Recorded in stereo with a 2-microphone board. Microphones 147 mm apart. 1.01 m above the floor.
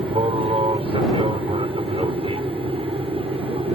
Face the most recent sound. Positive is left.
turn(degrees=-40)  # may be behind; listen again after turning